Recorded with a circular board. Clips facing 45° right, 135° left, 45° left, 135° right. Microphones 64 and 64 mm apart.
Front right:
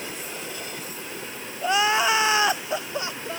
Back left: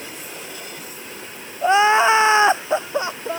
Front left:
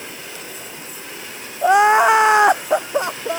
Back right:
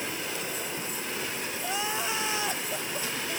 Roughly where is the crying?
Left.